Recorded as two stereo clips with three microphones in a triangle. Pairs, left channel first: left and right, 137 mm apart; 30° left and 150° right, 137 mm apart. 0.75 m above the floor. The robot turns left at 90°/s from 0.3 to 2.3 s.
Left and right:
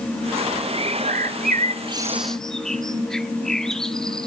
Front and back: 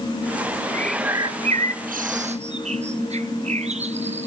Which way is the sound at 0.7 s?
45° right.